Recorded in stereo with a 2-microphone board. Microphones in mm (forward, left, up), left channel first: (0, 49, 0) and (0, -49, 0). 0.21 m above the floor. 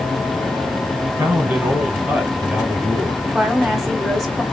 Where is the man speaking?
20° right (ahead or behind), 1.4 m; by 3.2 s centre (ahead or behind), 1.3 m.